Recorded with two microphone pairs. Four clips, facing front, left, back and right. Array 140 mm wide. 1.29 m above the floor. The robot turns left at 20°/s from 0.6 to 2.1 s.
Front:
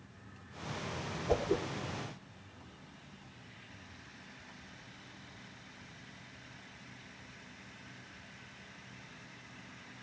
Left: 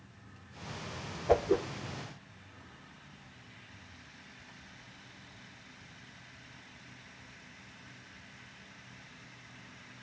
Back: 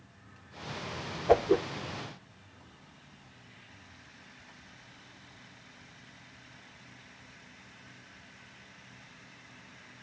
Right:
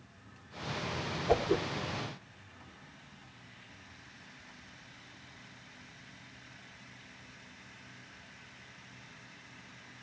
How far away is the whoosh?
About 1.1 m.